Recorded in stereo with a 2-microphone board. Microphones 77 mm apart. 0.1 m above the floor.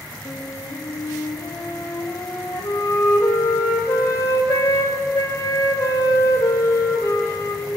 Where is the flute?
35° left (ahead or behind), 7 m.